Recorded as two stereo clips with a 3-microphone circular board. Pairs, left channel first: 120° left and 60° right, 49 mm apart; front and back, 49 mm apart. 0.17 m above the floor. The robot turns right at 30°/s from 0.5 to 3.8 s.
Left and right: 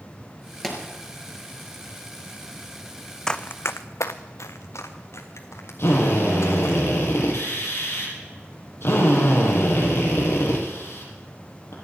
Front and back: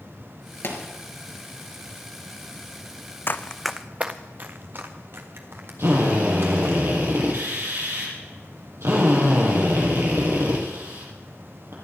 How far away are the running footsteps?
About 0.7 m.